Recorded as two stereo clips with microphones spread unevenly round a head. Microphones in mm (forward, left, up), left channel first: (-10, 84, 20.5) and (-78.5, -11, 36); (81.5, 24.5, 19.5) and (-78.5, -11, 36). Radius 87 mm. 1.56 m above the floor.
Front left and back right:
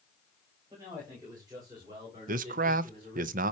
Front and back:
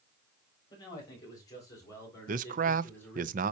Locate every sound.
0.7 s a man speaking: 55° right, 6 m; by 3.3 s 70° right, 4.5 m
2.3 s a man speaking: 120° right, 0.6 m